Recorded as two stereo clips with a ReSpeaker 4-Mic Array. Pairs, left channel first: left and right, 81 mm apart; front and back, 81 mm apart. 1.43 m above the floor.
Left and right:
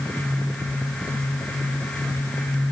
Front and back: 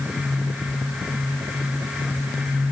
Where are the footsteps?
No footsteps in this recording.